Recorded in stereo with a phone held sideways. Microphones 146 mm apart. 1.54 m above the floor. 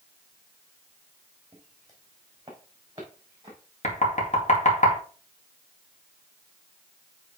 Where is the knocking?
55° left (ahead or behind), 2 m.